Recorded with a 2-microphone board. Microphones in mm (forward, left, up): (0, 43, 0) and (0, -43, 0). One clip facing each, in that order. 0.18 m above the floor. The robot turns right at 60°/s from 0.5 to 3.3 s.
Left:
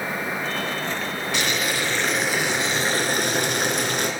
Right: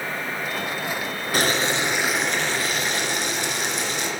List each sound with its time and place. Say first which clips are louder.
1.3 s boiling: right 4 dB; 55° right, 2.5 m; by 4.1 s 65° left, 2.5 m